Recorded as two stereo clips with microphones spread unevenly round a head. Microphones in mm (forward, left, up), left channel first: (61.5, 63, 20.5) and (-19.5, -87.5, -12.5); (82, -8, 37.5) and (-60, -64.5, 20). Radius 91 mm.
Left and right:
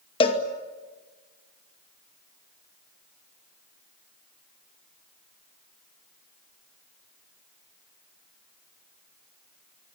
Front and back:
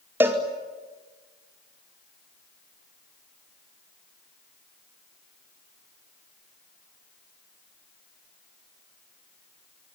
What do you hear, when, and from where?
0.2 s a cowbell: 125° left, 2 m